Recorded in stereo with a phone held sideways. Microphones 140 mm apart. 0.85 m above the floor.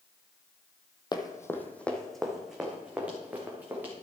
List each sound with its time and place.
1.1 s running footsteps: 30° left (ahead or behind), 1.1 m; by 3.9 s 15° right (ahead or behind), 3.5 m